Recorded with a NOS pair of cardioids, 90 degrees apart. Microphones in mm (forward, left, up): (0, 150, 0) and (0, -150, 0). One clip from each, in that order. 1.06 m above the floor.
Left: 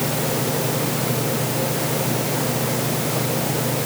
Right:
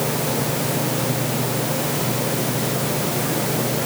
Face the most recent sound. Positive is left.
No sound to turn to.